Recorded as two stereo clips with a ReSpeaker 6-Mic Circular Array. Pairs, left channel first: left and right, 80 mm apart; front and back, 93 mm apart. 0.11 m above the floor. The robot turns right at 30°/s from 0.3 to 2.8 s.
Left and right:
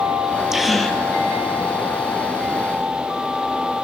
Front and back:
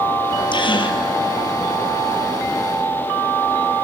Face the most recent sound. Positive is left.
turn(degrees=65)